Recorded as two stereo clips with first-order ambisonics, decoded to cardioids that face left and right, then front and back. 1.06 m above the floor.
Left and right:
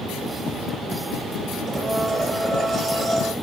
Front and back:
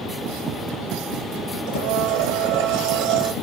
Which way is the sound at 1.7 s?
175° right.